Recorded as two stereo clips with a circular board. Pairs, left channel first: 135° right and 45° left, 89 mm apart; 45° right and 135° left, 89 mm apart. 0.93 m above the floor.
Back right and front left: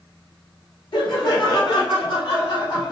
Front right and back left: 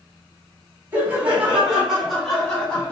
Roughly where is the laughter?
Behind right.